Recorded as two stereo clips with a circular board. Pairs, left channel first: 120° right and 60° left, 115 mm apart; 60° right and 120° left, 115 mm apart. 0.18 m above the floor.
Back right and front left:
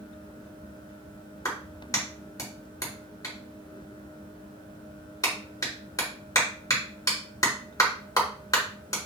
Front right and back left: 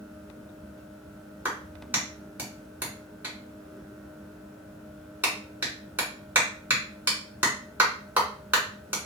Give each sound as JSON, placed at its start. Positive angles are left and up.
{"t": 1.4, "sound": "a clap", "azimuth_deg": -170, "distance_m": 2.0}